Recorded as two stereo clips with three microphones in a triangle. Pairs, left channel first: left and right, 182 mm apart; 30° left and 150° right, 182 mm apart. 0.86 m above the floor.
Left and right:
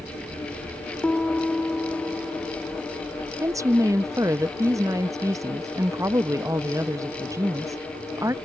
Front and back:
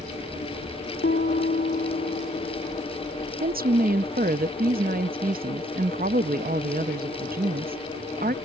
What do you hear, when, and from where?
1.0 s a piano: 5° left
3.4 s a woman speaking: 160° right